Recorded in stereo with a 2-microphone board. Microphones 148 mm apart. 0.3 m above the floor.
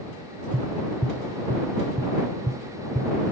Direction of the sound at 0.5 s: 50° right (ahead or behind).